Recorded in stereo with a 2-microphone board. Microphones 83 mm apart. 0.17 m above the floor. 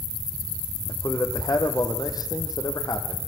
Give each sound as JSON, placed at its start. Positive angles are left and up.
{"t": 0.9, "sound": "a man speaking", "side_deg": 50, "distance_m": 6.0}